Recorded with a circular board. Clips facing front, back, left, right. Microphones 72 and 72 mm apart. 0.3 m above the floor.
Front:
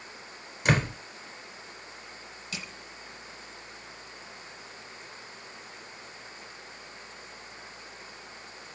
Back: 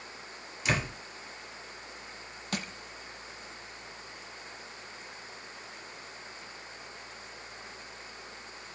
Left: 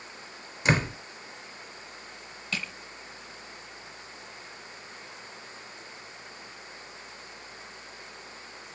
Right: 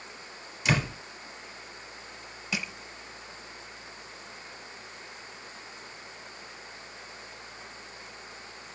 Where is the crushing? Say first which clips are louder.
Back 5 dB, right 1 dB; 165° right, 0.9 m.